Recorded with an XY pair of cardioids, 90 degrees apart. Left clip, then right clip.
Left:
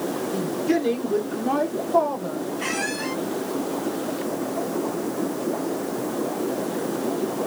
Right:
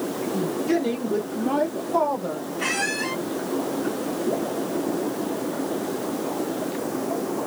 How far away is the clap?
No clap in this recording.